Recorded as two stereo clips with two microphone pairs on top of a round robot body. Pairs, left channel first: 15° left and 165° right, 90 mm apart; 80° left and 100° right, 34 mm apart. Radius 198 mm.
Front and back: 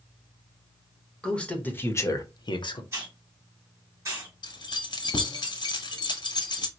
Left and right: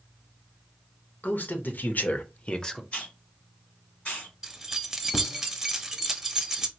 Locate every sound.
1.2 s a man speaking: 100° left, 1.5 m; by 2.8 s 5° left, 0.9 m
2.9 s a hiss: 135° left, 1.6 m
4.4 s keys jangling: 20° right, 0.9 m